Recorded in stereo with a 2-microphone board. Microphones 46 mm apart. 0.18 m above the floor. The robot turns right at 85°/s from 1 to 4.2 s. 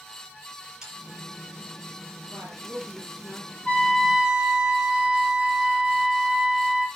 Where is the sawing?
10° right (ahead or behind), 5 m.